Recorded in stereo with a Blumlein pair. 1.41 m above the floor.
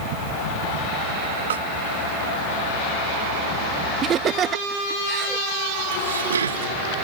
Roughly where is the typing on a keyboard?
I don't hear typing on a keyboard.